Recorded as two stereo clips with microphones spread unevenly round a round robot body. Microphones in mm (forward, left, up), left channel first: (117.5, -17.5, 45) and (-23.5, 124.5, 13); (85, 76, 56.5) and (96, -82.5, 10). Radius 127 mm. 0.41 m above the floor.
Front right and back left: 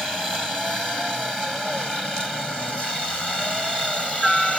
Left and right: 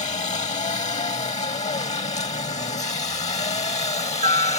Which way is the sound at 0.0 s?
45° left.